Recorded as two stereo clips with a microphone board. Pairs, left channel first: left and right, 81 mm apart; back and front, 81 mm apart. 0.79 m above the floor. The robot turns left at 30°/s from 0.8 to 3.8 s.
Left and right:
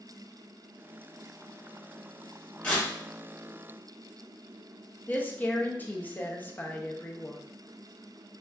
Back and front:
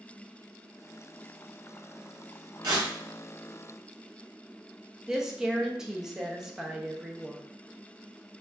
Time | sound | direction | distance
2.6 | tearing paper | 15° left | 1.8 m
5.1 | a woman speaking | 75° left | 0.5 m